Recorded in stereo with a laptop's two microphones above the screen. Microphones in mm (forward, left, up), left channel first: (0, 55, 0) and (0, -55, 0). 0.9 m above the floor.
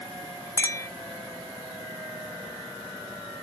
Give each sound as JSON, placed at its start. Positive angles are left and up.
{"t": 0.6, "sound": "a clink", "side_deg": 25}